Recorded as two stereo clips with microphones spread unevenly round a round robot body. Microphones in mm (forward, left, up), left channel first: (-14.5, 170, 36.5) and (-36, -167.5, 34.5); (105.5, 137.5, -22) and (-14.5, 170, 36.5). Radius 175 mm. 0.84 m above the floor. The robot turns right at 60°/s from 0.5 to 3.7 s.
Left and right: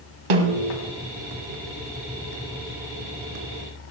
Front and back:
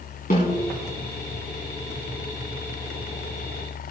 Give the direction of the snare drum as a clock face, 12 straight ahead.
3 o'clock.